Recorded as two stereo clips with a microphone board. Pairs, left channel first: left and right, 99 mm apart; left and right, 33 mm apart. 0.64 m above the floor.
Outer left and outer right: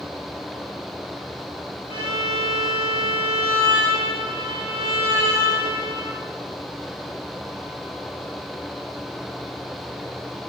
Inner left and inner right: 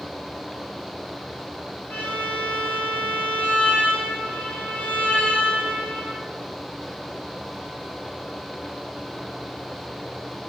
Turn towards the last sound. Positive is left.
turn(degrees=70)  # may be behind; listen again after turning